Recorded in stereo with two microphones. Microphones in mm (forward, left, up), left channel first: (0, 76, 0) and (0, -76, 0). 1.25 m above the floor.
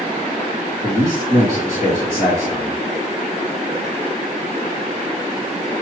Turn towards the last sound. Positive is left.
turn(degrees=-25)  # may be behind; listen again after turning